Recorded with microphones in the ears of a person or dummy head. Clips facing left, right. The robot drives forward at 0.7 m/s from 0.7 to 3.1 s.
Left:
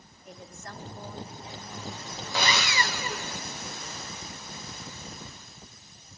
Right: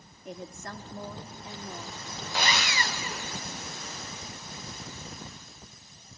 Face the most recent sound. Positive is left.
turn(degrees=55)  # may be behind; listen again after turning